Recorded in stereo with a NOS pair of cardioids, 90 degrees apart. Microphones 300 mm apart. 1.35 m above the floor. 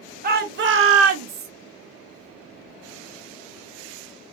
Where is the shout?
30° right, 1.0 m; by 1.5 s 70° right, 0.8 m.